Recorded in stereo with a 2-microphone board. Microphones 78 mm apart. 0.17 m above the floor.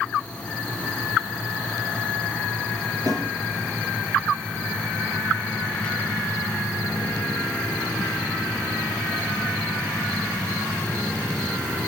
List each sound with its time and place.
3.1 s a snare drum: 50° right (ahead or behind), 2.5 m